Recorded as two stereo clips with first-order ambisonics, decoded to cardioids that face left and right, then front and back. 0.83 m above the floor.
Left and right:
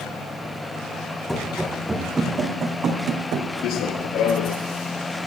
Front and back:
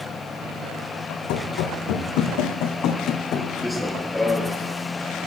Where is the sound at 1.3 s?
5° left, 2.5 m; by 3.5 s 50° right, 2.5 m.